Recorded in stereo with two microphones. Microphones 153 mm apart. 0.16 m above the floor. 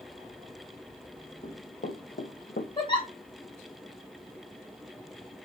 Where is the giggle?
30° left (ahead or behind), 1.6 m.